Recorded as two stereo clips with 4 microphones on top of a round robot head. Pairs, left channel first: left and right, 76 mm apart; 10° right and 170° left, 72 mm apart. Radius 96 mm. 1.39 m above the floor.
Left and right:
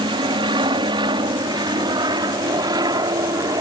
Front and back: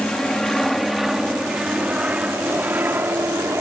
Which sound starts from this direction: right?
An aircraft, at 0.0 s.